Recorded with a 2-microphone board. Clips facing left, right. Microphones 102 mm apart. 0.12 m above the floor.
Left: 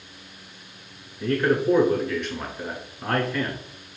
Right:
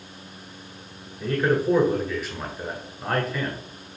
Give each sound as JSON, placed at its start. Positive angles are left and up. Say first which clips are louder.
{"t": 1.2, "sound": "a man speaking", "louder": "left 1 dB", "side_deg": -5, "distance_m": 1.4}